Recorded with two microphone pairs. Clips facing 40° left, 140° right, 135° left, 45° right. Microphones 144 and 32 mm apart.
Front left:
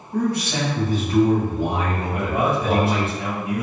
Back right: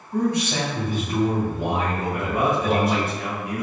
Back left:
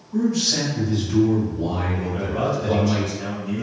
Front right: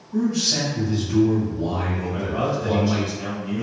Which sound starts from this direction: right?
A man speaking, at 0.1 s.